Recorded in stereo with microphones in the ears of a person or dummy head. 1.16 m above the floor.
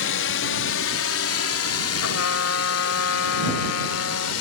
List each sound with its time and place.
0.0 s a drone: 60° left (ahead or behind); by 4.4 s 80° left
2.0 s a trumpet: 85° left